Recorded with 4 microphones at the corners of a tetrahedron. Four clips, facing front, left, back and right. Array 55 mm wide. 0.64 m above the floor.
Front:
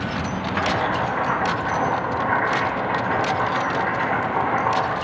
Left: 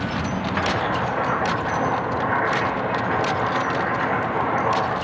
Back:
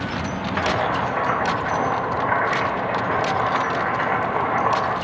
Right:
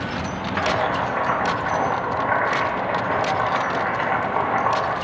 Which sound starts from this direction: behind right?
Boiling, at 0.6 s.